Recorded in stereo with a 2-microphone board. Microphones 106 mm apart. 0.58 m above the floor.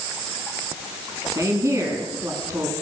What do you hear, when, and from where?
1.4 s a woman speaking: 30° right (ahead or behind), 6.5 m